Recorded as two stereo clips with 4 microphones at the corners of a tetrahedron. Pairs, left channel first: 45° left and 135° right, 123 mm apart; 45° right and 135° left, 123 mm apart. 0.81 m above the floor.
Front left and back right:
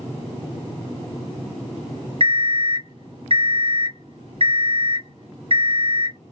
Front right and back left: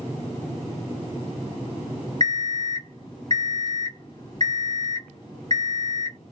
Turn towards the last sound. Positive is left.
turn(degrees=-100)